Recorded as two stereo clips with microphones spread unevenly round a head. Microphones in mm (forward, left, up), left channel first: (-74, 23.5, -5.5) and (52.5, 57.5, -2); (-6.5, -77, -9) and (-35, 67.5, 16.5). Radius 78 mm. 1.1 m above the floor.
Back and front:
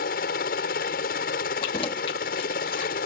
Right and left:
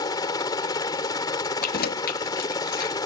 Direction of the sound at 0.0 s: 145° right.